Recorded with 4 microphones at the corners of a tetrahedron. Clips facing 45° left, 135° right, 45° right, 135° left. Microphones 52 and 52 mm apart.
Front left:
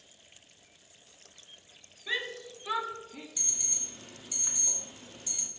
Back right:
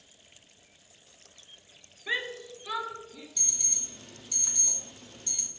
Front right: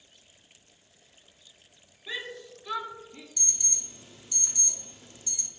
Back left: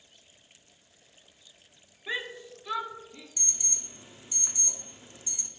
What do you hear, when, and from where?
2.1 s a shout: 175° left, 0.9 m; by 3.3 s 25° left, 1.0 m
3.4 s an alarm: 110° left, 0.6 m